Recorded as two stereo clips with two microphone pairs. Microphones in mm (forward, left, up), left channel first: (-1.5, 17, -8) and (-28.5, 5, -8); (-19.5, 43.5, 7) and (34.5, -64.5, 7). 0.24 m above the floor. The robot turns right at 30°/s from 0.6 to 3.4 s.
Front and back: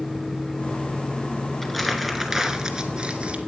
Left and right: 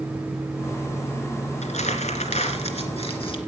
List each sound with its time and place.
1.6 s crumpling: 105° left, 1.8 m; by 3.4 s 160° left, 1.8 m